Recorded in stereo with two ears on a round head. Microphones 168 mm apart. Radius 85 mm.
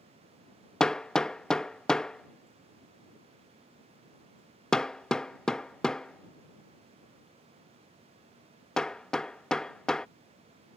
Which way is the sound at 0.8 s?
5° left (ahead or behind).